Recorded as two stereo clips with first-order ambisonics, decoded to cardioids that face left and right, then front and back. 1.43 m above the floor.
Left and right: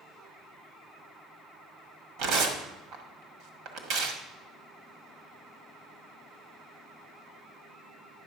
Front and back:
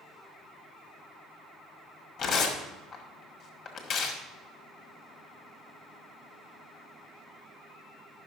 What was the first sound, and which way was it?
Tearing paper, 65° right.